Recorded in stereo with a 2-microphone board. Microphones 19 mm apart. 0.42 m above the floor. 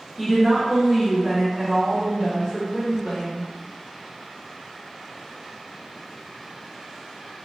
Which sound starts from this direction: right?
A woman speaking, at 0.2 s.